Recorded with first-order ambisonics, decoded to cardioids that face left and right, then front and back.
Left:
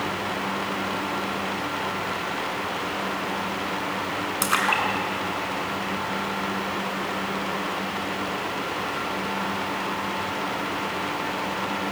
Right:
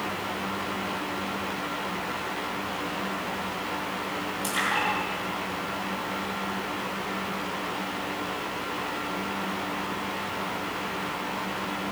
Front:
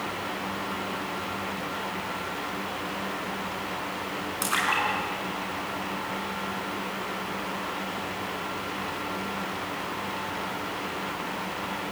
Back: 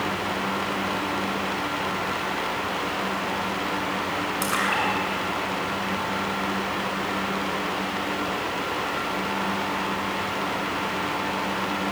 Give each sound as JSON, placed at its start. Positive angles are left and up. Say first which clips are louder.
{"t": 4.4, "sound": "a splash", "louder": "left 4 dB, even", "azimuth_deg": 90, "distance_m": 6.5}